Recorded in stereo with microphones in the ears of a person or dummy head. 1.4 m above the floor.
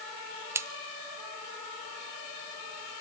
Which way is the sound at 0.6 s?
10° right (ahead or behind).